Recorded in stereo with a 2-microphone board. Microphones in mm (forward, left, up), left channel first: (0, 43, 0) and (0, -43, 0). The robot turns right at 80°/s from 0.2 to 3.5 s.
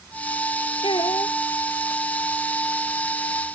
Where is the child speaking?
80° left; by 1.4 s 125° left.